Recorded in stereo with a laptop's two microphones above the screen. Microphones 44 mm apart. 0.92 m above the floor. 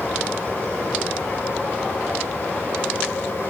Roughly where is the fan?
Left.